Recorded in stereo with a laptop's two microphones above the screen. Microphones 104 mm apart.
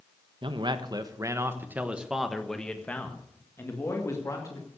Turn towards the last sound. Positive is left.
turn(degrees=35)  # may be behind; listen again after turning